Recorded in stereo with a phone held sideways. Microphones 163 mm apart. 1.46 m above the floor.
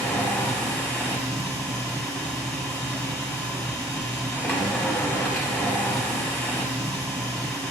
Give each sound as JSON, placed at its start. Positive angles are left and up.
{"t": 0.0, "sound": "a machine running", "side_deg": 10, "distance_m": 0.8}